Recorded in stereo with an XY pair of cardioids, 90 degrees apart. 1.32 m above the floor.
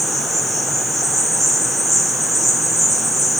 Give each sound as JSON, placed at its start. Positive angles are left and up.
{"t": 0.0, "sound": "an insect", "azimuth_deg": -20, "distance_m": 2.5}